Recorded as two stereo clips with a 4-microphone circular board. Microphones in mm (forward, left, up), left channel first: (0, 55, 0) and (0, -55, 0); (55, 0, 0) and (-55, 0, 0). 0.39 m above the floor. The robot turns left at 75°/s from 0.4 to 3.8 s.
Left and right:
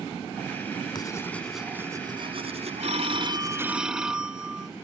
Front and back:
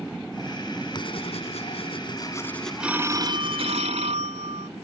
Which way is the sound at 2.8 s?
100° right.